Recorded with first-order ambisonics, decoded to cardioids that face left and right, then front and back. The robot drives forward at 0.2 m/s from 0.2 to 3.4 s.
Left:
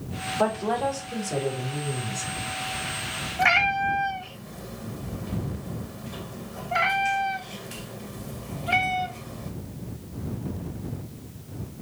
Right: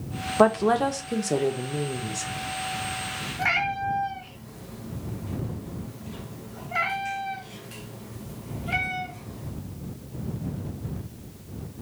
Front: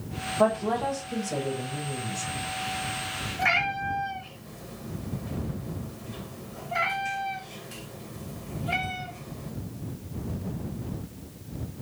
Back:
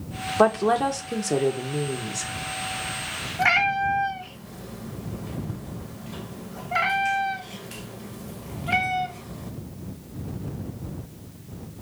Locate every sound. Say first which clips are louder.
0.4 s a woman speaking: right 5 dB, back 5 dB; 130° right, 0.8 m; by 2.3 s 145° right, 1.0 m
3.4 s a cat meowing: left 5 dB, back 5 dB; 145° left, 0.6 m